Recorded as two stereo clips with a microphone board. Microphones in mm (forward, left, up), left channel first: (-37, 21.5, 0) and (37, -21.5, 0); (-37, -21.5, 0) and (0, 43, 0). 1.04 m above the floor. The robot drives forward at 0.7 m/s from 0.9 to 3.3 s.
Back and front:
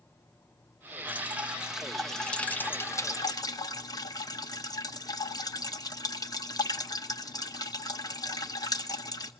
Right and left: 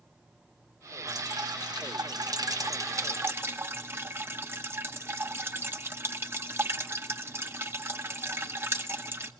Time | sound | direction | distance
1.1 | dripping | 40° left | 1.6 m